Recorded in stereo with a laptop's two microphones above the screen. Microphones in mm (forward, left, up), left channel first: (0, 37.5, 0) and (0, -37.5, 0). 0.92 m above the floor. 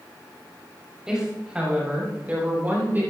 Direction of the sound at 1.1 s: 10° right (ahead or behind).